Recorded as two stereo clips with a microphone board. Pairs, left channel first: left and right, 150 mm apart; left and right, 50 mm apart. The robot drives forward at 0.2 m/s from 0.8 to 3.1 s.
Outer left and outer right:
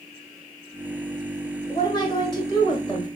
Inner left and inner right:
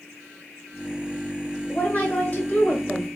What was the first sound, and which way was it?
A woman speaking, 30° left (ahead or behind).